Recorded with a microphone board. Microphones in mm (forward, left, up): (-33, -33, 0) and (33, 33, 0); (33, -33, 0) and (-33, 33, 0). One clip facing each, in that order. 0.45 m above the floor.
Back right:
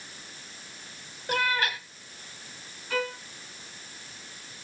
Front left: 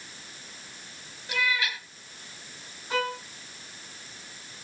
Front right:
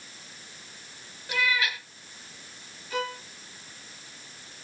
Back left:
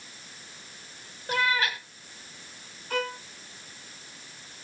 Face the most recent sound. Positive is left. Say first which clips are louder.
# front left 2 dB, back left 1 dB
turn(degrees=110)